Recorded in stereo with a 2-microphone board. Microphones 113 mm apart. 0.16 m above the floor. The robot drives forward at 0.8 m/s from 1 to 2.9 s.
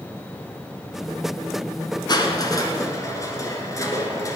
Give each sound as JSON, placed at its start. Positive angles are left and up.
{"t": 2.1, "sound": "crushing", "side_deg": 40, "distance_m": 1.3}